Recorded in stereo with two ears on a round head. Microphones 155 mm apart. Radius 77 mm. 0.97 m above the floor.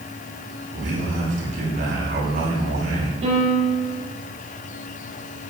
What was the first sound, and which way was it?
A man speaking, 50° right (ahead or behind).